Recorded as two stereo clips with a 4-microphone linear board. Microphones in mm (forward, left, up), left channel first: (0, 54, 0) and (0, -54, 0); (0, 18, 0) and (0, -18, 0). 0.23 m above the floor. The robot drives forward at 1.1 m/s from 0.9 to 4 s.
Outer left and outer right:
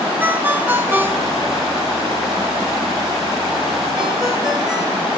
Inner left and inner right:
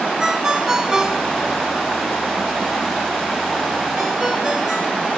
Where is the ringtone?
15° right (ahead or behind), 1.0 m; by 5.1 s 5° right (ahead or behind), 2.5 m.